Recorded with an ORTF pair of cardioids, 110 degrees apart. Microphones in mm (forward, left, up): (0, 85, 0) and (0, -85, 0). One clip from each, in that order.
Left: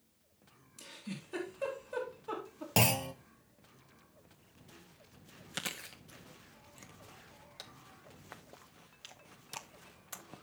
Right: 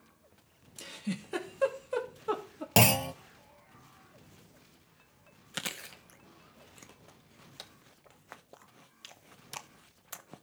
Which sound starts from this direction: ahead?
Chewing, at 5.5 s.